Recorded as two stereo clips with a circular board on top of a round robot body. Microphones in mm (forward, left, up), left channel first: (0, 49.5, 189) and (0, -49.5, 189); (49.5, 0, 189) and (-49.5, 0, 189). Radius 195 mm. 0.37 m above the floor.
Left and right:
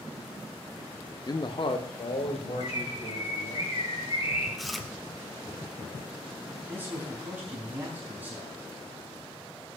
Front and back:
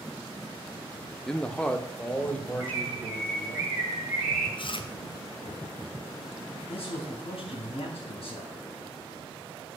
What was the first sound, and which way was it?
A man speaking, 80° left.